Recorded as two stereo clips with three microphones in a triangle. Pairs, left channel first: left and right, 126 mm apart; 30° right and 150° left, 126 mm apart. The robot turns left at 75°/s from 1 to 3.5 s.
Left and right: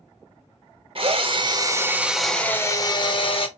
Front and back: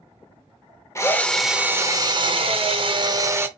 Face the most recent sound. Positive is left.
turn(degrees=85)